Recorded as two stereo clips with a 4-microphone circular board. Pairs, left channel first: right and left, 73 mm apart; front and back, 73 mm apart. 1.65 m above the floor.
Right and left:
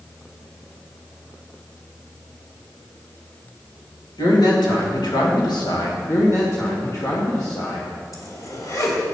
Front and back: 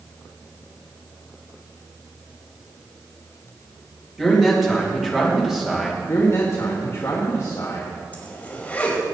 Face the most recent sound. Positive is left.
turn(degrees=-65)